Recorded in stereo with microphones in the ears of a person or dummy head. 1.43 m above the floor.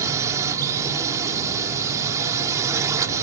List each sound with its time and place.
0.0 s a drone: 20° right (ahead or behind)